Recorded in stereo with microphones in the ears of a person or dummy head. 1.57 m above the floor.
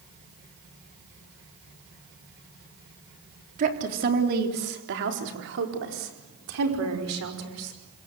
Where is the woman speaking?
40° right (ahead or behind), 3.5 m; by 7.8 s 85° right, 5.5 m.